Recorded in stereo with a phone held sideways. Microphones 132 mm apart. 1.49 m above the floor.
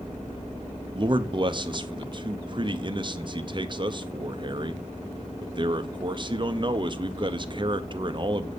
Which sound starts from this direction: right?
A man speaking, at 0.9 s.